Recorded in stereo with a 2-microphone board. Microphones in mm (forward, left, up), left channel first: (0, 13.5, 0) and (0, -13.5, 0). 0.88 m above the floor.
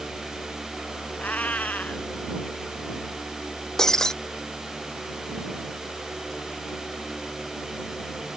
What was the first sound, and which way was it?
A cat meowing, 90° left.